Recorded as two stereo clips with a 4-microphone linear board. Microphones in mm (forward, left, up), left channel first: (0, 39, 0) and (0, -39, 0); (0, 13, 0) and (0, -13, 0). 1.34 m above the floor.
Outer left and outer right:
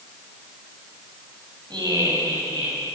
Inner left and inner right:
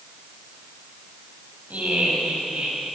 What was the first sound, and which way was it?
Laughter, 70° right (ahead or behind).